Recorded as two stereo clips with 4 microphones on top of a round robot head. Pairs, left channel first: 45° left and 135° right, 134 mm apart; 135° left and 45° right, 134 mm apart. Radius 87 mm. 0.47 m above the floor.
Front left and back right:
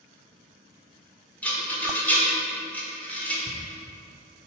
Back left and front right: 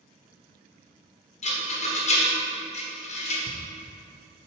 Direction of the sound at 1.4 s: 125° left.